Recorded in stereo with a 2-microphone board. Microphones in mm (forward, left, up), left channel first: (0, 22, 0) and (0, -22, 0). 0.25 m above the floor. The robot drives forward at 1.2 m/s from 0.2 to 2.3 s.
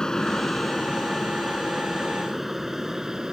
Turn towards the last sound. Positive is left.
turn(degrees=-15)  # may be behind; listen again after turning